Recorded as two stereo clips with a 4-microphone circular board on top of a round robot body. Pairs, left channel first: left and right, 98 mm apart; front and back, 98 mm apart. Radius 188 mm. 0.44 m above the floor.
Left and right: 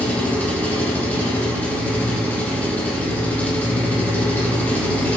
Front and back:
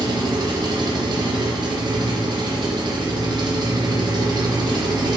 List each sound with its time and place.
0.0 s an engine running: 160° left, 1.0 m